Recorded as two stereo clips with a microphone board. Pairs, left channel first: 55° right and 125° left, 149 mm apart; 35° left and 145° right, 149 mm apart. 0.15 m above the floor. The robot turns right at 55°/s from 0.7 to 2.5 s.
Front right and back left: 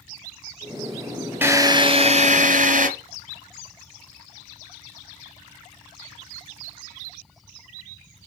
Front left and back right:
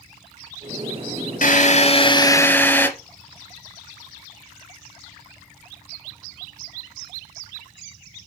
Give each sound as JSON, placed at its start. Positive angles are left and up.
{"t": 1.4, "sound": "a drill", "azimuth_deg": 50, "distance_m": 1.5}